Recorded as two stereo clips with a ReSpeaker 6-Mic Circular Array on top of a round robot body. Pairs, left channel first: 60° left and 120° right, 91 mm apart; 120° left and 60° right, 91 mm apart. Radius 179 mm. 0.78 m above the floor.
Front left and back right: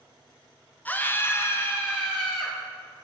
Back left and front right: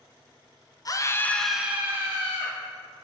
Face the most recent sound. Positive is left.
turn(degrees=-15)